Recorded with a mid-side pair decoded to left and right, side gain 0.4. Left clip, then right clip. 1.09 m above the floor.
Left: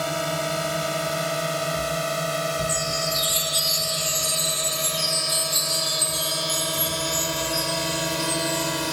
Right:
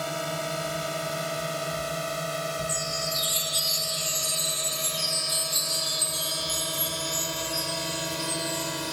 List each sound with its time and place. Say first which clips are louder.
0.0 s a drone: left 5 dB; 35° left; by 8.9 s 45° left
2.7 s a chime: left 4 dB; 25° left